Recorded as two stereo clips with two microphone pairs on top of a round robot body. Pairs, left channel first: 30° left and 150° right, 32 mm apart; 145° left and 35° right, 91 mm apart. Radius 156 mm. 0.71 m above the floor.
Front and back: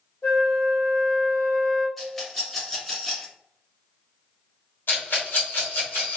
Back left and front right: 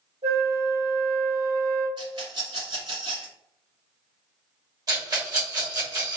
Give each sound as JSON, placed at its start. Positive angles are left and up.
{"t": 0.2, "sound": "a flute", "azimuth_deg": -40, "distance_m": 1.7}
{"t": 2.0, "sound": "a rattle", "azimuth_deg": -55, "distance_m": 1.7}
{"t": 4.9, "sound": "a rattle", "azimuth_deg": 15, "distance_m": 1.4}